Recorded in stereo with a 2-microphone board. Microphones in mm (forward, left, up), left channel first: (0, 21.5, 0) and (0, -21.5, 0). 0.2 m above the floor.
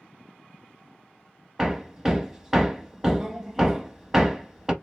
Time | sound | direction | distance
1.6 | hammering | 15° right (ahead or behind) | 0.6 m